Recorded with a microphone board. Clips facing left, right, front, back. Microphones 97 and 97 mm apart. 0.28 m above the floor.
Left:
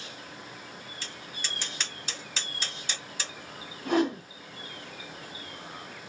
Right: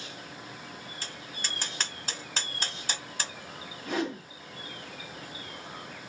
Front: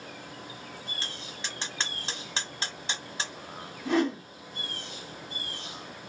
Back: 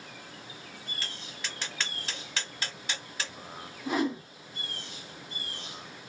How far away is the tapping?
About 1.0 m.